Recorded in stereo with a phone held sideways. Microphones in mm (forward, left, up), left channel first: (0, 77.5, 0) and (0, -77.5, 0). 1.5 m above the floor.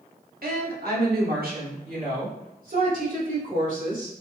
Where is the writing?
I don't hear writing.